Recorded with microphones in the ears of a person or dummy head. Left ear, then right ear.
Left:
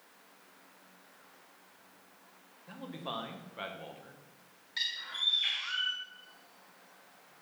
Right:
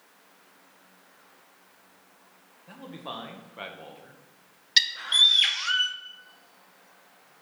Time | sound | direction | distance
2.7 | a man speaking | centre (ahead or behind) | 1.2 m
4.8 | a bird | 80° right | 0.7 m